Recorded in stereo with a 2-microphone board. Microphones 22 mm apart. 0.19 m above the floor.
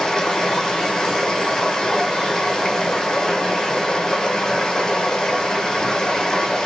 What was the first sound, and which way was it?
Running water, 35° left (ahead or behind).